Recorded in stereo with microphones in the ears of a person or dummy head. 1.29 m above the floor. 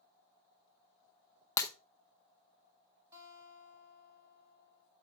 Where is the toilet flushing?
I don't hear a toilet flushing.